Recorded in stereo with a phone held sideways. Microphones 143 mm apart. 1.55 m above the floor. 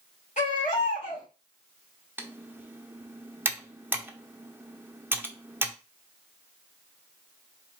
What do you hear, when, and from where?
0.4 s a baby crying: 55° left (ahead or behind), 3 m
2.2 s typing on a keyboard: 15° right (ahead or behind), 0.8 m